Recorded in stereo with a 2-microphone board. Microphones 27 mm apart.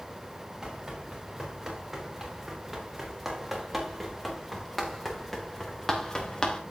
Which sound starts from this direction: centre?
Running footsteps, at 0.6 s.